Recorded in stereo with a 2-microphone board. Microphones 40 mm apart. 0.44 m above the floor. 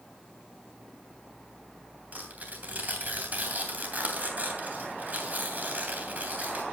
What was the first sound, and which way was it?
Tearing paper, 40° right (ahead or behind).